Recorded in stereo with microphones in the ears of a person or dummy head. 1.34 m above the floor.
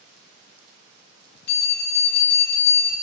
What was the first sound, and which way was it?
A bell, 55° left (ahead or behind).